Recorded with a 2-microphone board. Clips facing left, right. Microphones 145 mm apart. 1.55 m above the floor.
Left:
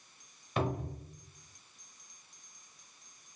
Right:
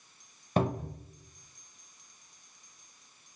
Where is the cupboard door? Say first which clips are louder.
Right 4 dB; 40° right (ahead or behind), 0.7 m.